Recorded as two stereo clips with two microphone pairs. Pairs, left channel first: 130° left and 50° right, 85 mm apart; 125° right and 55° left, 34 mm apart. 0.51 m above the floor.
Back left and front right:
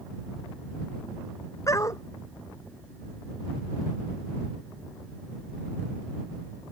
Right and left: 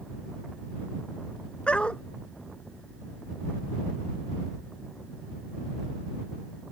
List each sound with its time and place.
1.7 s a dog barking: straight behind